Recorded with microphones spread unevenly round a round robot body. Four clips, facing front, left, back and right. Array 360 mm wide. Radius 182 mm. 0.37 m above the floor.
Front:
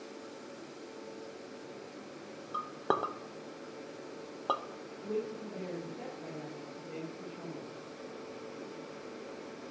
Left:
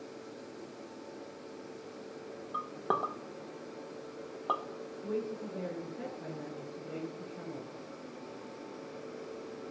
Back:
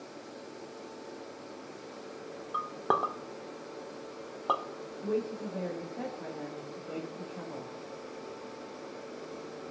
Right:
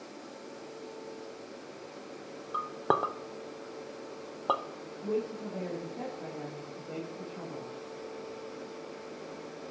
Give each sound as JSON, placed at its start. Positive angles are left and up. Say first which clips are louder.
{"t": 2.5, "sound": "a clink", "louder": "right 4 dB, back 3 dB", "azimuth_deg": -85, "distance_m": 0.7}
{"t": 5.0, "sound": "a woman speaking", "louder": "right 4 dB, back 4 dB", "azimuth_deg": -140, "distance_m": 3.5}